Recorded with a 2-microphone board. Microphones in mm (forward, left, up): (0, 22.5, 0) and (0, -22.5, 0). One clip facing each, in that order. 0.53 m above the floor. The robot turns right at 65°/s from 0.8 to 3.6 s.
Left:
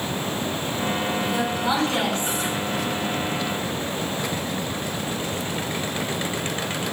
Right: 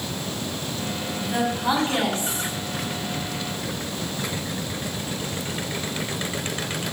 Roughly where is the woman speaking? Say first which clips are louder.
Left 1 dB; ahead right.